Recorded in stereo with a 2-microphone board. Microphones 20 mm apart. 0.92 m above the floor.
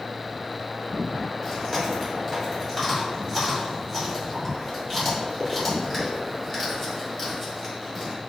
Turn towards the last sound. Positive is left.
turn(degrees=15)  # may be behind; listen again after turning